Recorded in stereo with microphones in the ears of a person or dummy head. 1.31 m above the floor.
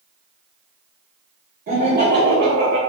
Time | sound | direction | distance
1.7 | laughter | 45° right (ahead or behind) | 1.1 m